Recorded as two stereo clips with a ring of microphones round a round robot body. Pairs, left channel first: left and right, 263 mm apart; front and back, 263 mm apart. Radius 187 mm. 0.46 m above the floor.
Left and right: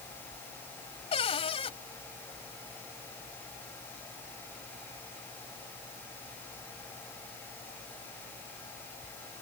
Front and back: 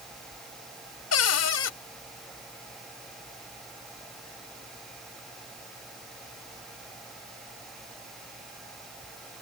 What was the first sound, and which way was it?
A cupboard door, 15° left.